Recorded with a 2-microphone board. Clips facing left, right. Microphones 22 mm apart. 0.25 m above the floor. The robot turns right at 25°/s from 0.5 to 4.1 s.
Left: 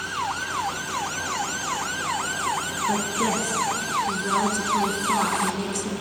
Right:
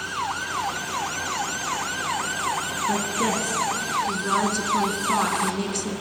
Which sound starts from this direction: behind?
A woman speaking, at 2.9 s.